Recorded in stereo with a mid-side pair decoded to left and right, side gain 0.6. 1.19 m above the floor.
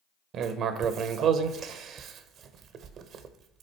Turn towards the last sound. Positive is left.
turn(degrees=-55)